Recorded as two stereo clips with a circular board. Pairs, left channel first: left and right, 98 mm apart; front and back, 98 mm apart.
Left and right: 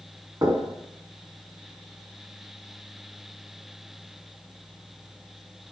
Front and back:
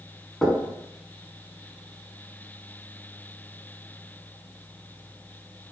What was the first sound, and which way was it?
Knocking, 85° right.